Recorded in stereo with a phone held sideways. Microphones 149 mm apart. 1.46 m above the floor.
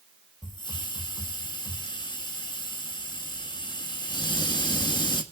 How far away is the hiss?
About 1.5 m.